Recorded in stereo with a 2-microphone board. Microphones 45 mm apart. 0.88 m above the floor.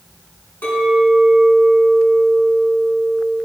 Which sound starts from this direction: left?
A clink, at 0.6 s.